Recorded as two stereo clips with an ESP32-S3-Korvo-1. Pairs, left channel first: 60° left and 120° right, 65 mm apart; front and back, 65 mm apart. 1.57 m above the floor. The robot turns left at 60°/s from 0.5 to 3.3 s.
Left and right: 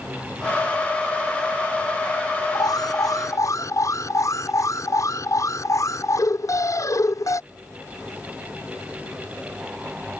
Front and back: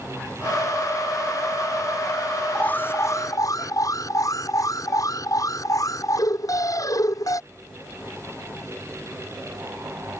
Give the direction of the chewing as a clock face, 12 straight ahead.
I don't hear chewing.